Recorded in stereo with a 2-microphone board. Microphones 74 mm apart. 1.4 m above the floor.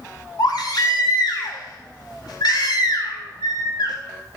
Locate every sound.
0.4 s a baby crying: 65° left (ahead or behind), 1.6 m